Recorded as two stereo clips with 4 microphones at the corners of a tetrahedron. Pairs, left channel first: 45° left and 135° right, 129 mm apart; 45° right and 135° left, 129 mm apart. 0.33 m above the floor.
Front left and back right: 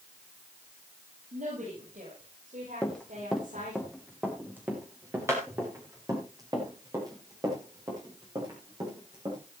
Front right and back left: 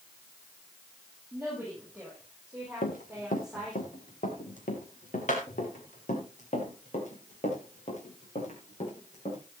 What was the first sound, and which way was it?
A woman speaking, 145° right.